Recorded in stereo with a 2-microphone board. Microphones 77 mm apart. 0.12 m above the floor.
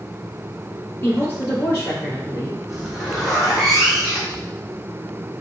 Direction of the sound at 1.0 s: 30° left (ahead or behind).